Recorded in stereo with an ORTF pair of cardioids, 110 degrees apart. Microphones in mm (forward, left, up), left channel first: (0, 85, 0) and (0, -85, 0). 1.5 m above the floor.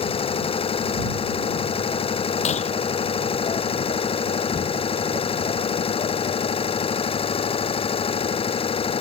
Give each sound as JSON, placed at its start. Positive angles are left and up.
{"t": 0.0, "sound": "an engine running", "azimuth_deg": 35}
{"t": 2.5, "sound": "breaking glass", "azimuth_deg": 45}